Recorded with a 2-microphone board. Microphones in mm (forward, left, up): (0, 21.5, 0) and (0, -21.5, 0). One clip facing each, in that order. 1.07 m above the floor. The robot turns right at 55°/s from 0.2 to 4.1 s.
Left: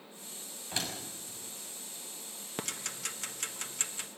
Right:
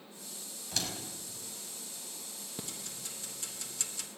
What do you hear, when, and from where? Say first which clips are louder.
0.7 s a door slam: left 1 dB; 25° left (ahead or behind), 5.5 m; by 0.9 s 10° left (ahead or behind), 5.5 m
2.6 s ticking: left 7 dB; 65° left (ahead or behind), 1.1 m; by 4.1 s 25° left (ahead or behind), 1.1 m